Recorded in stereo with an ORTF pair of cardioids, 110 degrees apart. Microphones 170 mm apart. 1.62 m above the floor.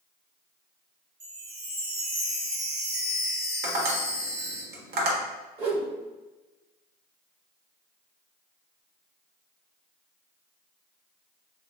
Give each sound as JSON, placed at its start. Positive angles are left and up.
{"t": 1.2, "sound": "a chime", "azimuth_deg": -35, "distance_m": 1.4}
{"t": 3.6, "sound": "tapping", "azimuth_deg": -70, "distance_m": 1.2}
{"t": 5.6, "sound": "a whoosh", "azimuth_deg": -35, "distance_m": 1.1}